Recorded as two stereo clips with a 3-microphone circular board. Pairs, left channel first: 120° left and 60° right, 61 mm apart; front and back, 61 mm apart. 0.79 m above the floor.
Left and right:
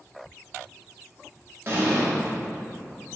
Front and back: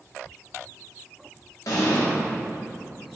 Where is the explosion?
10° right, 0.9 m.